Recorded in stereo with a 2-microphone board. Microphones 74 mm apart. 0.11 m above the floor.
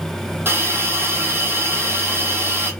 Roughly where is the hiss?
Right.